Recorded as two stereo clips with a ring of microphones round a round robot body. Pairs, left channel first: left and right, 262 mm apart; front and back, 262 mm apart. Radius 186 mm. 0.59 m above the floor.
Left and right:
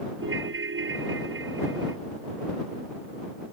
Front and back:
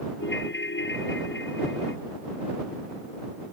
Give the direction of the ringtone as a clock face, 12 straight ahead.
2 o'clock.